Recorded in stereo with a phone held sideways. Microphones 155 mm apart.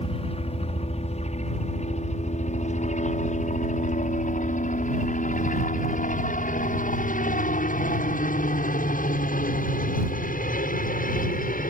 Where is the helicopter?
45° left (ahead or behind); by 11.7 s 75° left (ahead or behind).